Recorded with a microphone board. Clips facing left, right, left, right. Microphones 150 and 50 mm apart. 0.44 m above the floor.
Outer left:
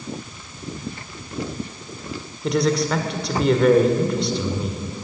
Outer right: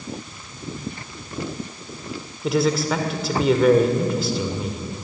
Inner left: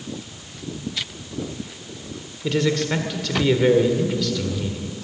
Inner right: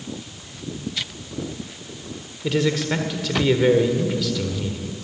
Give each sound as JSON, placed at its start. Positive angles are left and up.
{"t": 2.4, "sound": "a man speaking", "side_deg": -5, "distance_m": 1.7}